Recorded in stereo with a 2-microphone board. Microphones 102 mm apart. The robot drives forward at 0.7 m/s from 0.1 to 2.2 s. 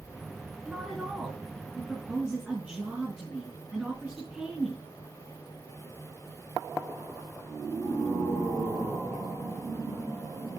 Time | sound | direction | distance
0.7 | a woman speaking | 5° right (ahead or behind) | 4.5 m